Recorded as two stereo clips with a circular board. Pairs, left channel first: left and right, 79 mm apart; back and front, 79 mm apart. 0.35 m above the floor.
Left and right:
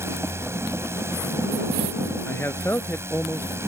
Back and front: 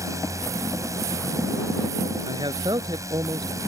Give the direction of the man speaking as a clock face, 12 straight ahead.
11 o'clock.